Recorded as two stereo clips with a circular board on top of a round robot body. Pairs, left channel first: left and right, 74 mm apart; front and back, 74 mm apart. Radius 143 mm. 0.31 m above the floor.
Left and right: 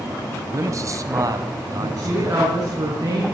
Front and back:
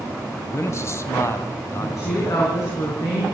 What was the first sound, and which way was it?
A man speaking, 45° right.